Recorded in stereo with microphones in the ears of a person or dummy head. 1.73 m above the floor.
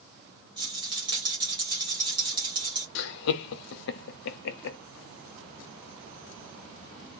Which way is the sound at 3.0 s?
70° left (ahead or behind).